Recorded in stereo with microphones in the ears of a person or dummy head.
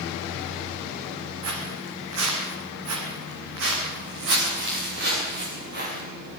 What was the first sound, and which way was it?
Footsteps, 70° right (ahead or behind).